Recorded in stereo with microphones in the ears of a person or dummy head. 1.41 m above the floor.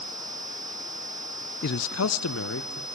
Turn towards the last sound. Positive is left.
turn(degrees=60)  # may be behind; listen again after turning